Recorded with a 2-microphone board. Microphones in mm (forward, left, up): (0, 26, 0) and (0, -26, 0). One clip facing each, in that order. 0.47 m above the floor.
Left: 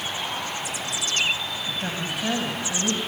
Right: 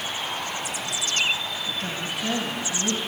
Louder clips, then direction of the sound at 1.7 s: Left 1 dB; 25° left (ahead or behind).